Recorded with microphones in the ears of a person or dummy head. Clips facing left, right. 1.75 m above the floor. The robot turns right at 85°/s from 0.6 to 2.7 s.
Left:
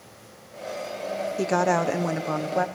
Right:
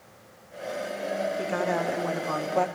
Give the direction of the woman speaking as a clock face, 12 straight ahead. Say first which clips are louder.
Left 4 dB; 10 o'clock.